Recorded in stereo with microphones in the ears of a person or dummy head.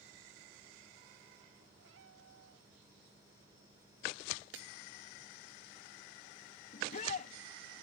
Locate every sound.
1.8 s a cat meowing: 75° right (ahead or behind)
4.5 s breaking glass: 70° right (ahead or behind)
6.7 s a shout: 50° left (ahead or behind)